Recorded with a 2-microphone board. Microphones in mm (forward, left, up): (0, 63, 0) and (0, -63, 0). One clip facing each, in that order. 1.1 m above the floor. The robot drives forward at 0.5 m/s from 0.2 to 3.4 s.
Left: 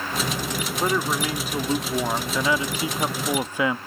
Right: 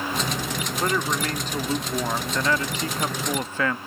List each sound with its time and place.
0.8 s a man speaking: 10° left (ahead or behind); by 3.8 s 15° left (ahead or behind)